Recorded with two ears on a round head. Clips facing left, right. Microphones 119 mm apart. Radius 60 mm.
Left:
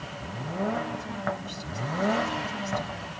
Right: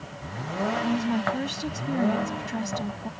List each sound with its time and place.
0.8 s a woman speaking: 75° right (ahead or behind); by 3.1 s 70° right (ahead or behind)